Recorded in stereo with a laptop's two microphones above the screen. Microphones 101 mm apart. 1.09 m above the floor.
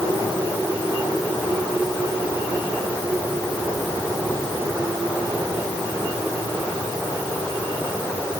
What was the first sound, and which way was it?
Only background noise.